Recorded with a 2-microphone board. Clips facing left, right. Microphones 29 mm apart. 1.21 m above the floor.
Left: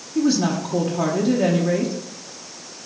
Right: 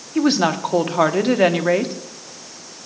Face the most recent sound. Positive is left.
turn(degrees=-65)  # may be behind; listen again after turning